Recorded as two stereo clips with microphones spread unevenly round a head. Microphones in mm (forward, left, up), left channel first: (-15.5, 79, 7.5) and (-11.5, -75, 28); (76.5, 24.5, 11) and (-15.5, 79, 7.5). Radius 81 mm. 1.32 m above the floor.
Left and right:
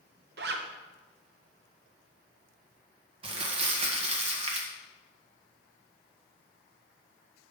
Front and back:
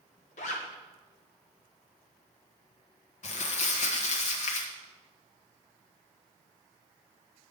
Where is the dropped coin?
No dropped coin in this recording.